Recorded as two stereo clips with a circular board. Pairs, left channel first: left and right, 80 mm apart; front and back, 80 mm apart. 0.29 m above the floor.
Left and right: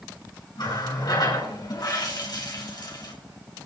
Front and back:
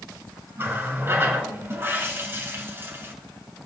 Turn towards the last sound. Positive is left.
turn(degrees=120)